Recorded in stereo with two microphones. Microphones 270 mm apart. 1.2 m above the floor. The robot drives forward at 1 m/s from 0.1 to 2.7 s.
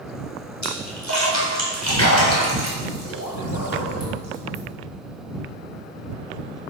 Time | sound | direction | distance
0.6 | a splash | 85° left | 4.5 m